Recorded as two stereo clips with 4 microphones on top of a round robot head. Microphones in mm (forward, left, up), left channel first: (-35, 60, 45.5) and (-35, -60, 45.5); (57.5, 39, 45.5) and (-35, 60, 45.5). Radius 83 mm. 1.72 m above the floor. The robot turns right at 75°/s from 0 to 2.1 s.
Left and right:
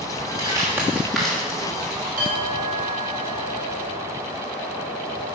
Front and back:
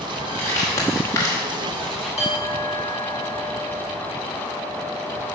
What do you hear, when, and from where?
0.4 s crumpling: 60° right, 1.2 m; by 2.2 s 65° left, 1.2 m
2.2 s a clink: 60° right, 1.5 m